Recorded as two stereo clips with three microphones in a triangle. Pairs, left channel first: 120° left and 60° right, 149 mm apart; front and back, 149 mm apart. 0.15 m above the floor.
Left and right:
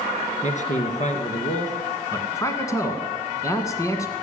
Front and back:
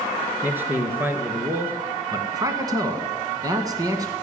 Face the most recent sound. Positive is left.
turn(degrees=155)